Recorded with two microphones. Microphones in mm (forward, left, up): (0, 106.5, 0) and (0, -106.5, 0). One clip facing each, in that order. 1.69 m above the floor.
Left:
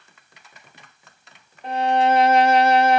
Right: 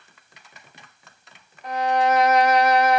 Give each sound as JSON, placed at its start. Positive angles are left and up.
{"t": 1.6, "sound": "a violin", "side_deg": 25, "distance_m": 0.9}